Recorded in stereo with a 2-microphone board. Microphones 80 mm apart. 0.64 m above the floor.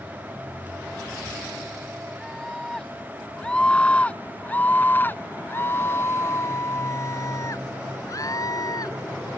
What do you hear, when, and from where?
2.2 s a scream: 5° left (ahead or behind); by 9.0 s 50° left (ahead or behind)